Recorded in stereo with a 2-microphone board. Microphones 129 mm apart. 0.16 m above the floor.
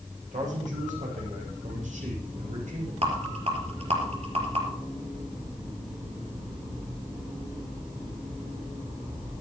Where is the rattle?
55° right (ahead or behind), 4 m.